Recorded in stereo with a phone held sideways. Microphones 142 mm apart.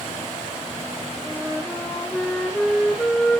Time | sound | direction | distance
1.2 | a flute | centre (ahead or behind) | 2.0 m